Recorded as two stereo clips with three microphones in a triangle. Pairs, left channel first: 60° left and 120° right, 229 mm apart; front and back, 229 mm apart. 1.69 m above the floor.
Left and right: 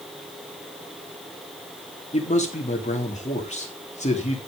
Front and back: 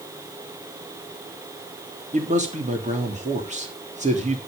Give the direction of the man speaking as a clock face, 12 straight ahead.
8 o'clock.